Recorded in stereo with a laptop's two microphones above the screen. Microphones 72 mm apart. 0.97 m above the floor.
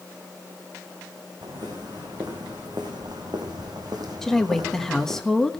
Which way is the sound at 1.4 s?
75° right (ahead or behind).